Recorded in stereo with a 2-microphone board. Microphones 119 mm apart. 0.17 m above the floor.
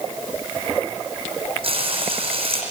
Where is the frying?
55° right (ahead or behind), 8.5 m.